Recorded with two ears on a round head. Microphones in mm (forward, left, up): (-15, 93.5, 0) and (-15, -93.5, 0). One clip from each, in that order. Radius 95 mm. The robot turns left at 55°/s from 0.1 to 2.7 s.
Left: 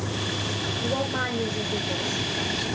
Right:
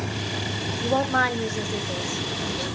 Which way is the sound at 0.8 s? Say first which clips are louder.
Right 8 dB; 95° right.